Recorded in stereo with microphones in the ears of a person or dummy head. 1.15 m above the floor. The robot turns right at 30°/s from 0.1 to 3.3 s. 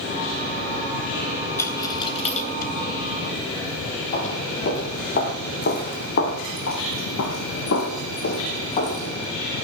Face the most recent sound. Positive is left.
turn(degrees=25)  # may be behind; listen again after turning